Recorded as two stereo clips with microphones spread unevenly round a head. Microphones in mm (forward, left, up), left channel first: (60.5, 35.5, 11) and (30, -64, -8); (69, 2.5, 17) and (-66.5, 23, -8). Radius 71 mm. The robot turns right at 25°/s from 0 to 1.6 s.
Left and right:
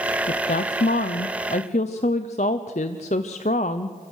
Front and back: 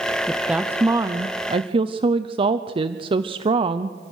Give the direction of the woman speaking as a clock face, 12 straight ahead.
9 o'clock.